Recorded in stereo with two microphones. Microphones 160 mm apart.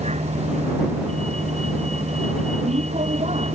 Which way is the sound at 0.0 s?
45° right (ahead or behind).